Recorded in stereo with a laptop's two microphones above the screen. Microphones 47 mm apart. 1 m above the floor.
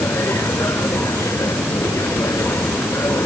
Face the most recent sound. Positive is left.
turn(degrees=85)